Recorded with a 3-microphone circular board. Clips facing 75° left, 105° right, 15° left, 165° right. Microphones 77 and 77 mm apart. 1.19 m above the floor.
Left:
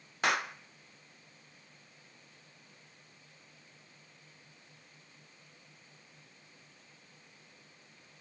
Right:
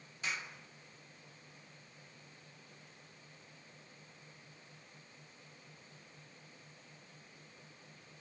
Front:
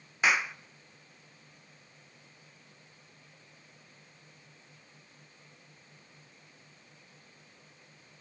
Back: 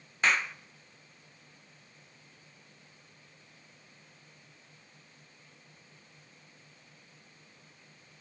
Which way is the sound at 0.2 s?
95° left.